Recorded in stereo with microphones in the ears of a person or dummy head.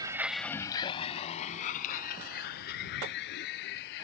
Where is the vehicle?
20° right (ahead or behind); by 4.0 s 65° left (ahead or behind).